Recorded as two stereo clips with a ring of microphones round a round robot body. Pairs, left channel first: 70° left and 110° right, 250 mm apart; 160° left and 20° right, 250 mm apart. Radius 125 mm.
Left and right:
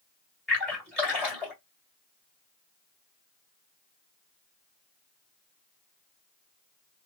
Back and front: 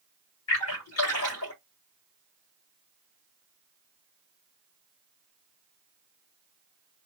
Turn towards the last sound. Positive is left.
turn(degrees=155)